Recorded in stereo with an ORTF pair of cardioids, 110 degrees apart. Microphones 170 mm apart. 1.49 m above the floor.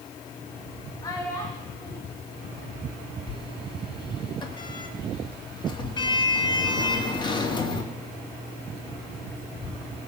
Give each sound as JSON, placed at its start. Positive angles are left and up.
{"t": 1.0, "sound": "a child speaking", "azimuth_deg": 20, "distance_m": 1.9}
{"t": 3.3, "sound": "a sliding door", "azimuth_deg": 25, "distance_m": 2.0}